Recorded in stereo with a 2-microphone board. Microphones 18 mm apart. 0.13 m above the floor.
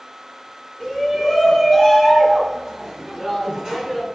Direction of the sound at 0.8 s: 25° left (ahead or behind).